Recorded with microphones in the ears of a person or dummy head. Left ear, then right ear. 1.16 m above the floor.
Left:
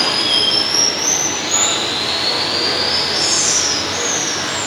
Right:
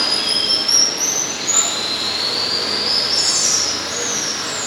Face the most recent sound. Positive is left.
turn(degrees=-70)  # may be behind; listen again after turning